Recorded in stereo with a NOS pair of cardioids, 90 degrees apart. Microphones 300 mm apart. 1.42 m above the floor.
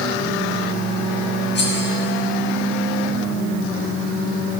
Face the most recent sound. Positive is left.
turn(degrees=35)